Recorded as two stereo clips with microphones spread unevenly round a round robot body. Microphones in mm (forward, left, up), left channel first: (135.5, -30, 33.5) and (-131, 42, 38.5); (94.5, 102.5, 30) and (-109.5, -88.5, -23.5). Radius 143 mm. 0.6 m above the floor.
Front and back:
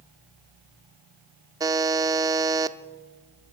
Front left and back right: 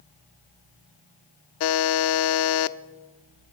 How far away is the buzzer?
About 0.6 m.